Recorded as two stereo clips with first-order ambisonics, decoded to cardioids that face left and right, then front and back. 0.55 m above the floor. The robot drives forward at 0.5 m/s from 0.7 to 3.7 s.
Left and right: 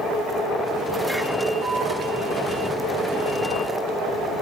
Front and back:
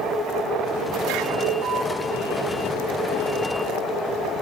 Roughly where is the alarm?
Behind.